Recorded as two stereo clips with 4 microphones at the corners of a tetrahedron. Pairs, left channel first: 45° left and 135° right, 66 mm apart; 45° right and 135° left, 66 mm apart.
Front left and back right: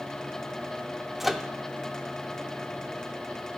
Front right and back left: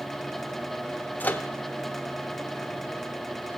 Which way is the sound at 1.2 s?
50° right.